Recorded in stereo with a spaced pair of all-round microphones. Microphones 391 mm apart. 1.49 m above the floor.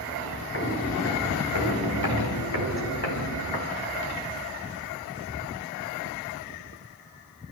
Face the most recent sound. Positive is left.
turn(degrees=75)  # may be behind; listen again after turning